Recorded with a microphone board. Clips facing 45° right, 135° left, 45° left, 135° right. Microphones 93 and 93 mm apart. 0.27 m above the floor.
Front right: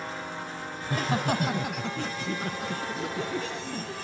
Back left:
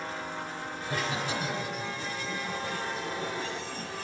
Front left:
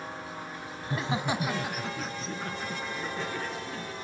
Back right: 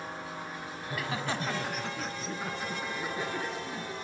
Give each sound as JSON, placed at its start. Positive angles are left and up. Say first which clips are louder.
{"t": 0.8, "sound": "laughter", "louder": "front right 5 dB, front left 4 dB", "azimuth_deg": -5, "distance_m": 1.6}